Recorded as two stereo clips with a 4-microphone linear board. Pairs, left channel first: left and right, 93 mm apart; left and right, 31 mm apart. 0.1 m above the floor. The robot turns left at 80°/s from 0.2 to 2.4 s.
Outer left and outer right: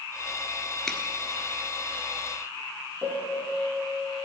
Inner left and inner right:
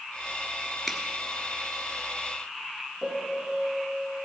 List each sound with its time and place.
0.9 s a finger snap: 5° left (ahead or behind), 1.2 m; by 1.0 s 10° left (ahead or behind), 1.2 m
3.0 s a piano: 20° right (ahead or behind), 3 m